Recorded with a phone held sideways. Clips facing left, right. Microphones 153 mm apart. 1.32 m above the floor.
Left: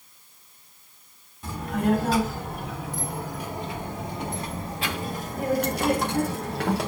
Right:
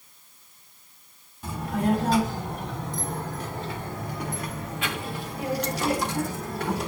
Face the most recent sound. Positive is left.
turn(degrees=75)  # may be behind; listen again after turning